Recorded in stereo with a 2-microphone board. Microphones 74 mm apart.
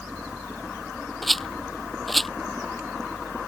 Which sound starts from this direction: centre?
A rattle, at 1.2 s.